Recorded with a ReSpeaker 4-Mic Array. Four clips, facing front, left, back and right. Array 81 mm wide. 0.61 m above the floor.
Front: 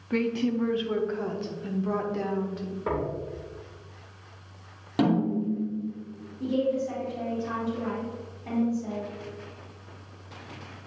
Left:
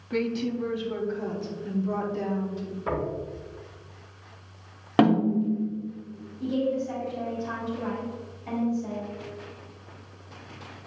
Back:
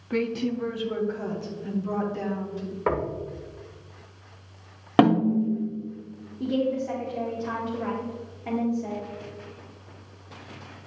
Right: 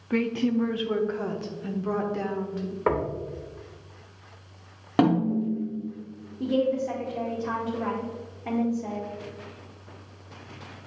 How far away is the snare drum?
About 1.1 m.